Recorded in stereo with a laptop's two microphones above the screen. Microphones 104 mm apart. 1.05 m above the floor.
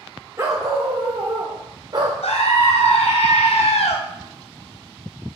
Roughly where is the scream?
Left.